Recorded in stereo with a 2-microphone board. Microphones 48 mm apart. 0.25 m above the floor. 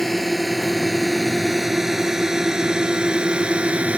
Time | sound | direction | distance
0.0 | a drone | 5° left (ahead or behind) | ?